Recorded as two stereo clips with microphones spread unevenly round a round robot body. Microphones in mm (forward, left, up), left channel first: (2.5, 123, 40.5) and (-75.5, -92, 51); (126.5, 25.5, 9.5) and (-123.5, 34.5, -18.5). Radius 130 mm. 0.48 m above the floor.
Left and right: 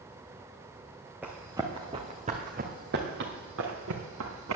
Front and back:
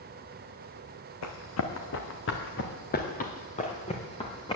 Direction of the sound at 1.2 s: 25° right.